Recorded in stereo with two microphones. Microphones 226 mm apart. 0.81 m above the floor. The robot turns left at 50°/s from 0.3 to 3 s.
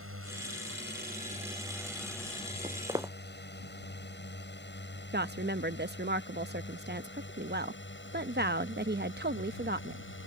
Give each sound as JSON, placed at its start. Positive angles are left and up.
{"t": 0.0, "sound": "a drone", "side_deg": -75}
{"t": 2.6, "sound": "footsteps", "side_deg": -30}
{"t": 5.1, "sound": "a woman speaking", "side_deg": -50}